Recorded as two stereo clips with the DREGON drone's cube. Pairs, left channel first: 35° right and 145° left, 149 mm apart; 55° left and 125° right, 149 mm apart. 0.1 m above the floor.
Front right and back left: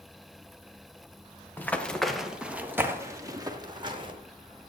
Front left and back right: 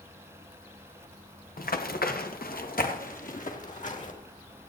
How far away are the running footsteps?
About 2.0 m.